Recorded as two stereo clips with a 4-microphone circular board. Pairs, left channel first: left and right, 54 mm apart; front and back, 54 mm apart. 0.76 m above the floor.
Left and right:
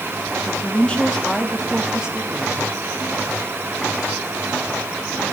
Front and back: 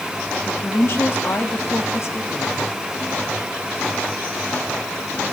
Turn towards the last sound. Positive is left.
turn(degrees=-30)